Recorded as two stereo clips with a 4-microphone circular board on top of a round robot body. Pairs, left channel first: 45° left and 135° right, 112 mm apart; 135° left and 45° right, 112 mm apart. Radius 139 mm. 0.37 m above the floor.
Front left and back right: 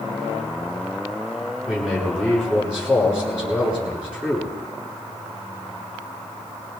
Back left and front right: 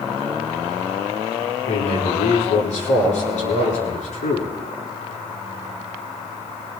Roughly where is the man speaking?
Behind left.